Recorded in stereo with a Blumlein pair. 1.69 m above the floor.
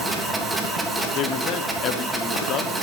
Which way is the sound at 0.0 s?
5° right.